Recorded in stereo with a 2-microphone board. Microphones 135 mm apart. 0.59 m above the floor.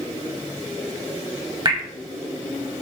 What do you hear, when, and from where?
1.6 s dripping: 30° right (ahead or behind), 2 m